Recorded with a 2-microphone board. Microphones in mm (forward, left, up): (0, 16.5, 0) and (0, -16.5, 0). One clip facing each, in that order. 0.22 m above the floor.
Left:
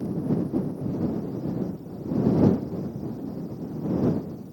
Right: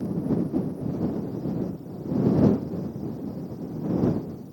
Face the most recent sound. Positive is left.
No sound to turn to.